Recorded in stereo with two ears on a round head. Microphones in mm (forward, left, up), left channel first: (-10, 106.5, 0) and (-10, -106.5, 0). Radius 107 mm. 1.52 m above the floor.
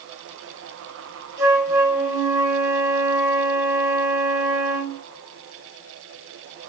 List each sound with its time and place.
1.4 s a flute: 15° right (ahead or behind), 0.9 m